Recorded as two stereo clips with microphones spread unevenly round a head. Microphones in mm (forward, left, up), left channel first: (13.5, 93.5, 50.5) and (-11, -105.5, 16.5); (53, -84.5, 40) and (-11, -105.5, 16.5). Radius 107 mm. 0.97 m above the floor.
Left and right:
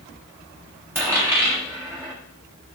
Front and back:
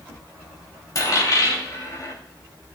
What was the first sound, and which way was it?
A dropped coin, 20° right.